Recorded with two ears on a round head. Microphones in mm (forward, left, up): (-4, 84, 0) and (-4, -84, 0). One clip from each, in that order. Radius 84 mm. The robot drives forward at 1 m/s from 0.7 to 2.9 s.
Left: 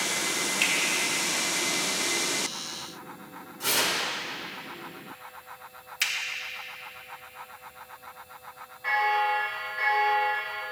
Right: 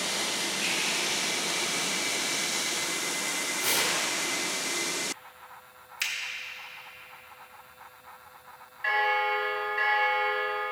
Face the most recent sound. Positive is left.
turn(degrees=-85)